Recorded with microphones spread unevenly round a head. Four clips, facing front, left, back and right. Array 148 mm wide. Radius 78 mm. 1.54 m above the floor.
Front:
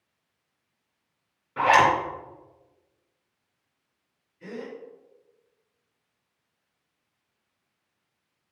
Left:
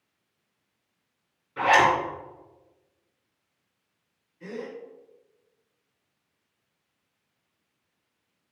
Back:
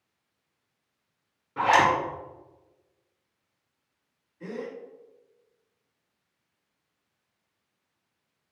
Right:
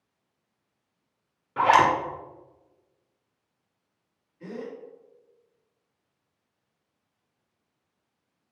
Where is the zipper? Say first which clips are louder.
Right 1 dB, front 2 dB; 110° right, 2.5 m.